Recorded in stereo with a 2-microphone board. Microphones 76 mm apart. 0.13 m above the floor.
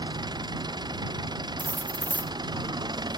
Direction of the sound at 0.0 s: 60° right (ahead or behind).